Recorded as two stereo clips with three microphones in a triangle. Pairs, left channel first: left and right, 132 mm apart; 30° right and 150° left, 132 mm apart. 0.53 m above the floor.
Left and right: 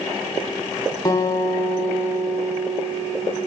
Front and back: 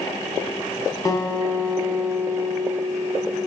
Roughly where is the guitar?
Ahead left.